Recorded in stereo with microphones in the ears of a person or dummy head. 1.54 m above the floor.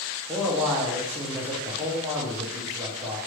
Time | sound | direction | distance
0.3 | a man speaking | 5° right (ahead or behind) | 0.5 m